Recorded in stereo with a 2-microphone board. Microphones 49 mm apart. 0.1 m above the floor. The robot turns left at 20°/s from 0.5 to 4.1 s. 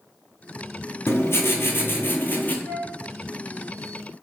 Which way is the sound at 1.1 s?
60° left (ahead or behind).